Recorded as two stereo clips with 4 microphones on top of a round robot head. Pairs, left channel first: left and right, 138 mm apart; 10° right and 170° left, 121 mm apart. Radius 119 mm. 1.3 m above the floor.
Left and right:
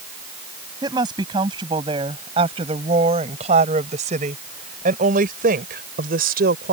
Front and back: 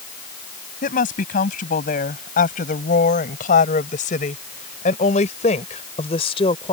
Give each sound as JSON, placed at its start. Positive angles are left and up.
{"t": 0.8, "sound": "a woman speaking", "azimuth_deg": -25}